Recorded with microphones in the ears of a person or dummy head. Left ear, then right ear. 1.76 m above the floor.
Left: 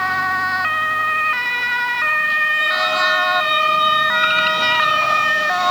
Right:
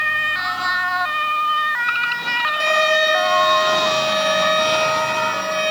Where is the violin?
85° right, 5.5 m.